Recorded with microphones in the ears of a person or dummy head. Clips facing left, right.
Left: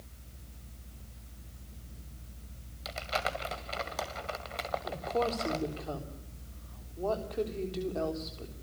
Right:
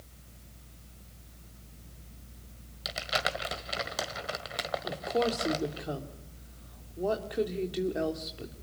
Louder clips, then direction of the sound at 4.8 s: Right 3 dB; 15° right (ahead or behind).